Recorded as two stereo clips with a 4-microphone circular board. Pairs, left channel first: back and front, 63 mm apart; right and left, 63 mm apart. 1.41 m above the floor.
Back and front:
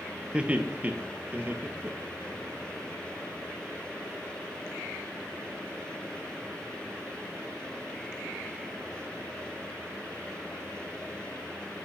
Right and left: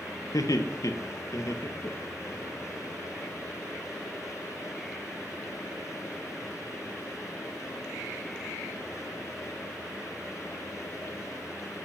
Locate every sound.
0.3 s laughter: 70° right, 1.7 m; by 2.4 s 50° right, 2.5 m